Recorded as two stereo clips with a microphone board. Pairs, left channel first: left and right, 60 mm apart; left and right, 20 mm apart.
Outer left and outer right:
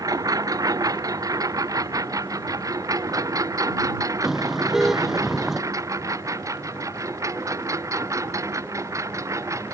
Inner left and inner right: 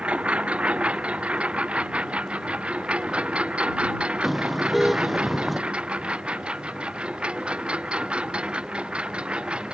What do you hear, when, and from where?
0.0 s a lawn mower: 85° right; by 9.7 s 60° right (ahead or behind)
4.2 s a car horn: 5° right (ahead or behind)